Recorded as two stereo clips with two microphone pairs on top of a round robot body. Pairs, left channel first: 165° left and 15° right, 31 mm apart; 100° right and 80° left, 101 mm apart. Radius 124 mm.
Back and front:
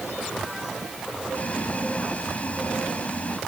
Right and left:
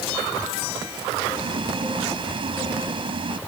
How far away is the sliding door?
No sliding door in this recording.